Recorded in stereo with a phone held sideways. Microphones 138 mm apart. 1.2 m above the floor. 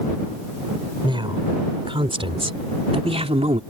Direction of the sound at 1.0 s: 35° right (ahead or behind).